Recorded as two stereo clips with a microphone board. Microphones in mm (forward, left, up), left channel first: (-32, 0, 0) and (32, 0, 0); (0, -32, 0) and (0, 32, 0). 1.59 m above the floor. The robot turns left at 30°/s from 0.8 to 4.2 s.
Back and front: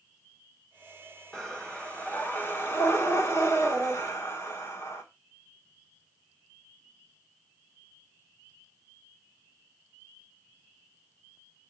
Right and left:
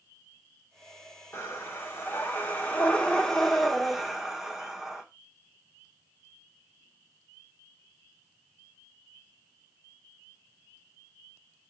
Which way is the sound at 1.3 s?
105° right.